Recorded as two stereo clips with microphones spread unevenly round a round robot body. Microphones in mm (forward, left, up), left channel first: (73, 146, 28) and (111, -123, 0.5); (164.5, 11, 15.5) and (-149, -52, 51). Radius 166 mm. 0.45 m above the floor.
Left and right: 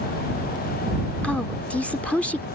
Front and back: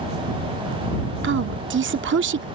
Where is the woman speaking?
170° right.